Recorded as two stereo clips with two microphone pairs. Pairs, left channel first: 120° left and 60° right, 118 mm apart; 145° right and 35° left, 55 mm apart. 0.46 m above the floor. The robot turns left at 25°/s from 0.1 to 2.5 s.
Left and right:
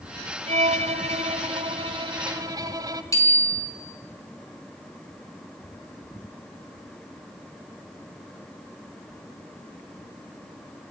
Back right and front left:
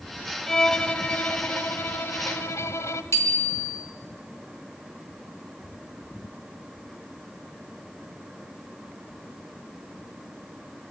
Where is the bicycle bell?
175° right, 3.5 m.